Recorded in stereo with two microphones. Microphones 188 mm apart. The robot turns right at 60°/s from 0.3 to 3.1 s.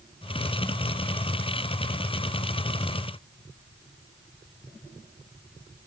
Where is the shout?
No shout in this recording.